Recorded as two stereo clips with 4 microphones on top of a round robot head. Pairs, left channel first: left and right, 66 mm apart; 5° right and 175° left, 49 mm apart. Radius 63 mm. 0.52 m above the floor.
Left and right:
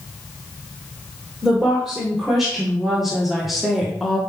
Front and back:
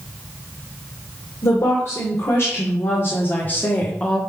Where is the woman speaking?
5° right, 2.5 m; by 4.2 s straight ahead, 1.3 m.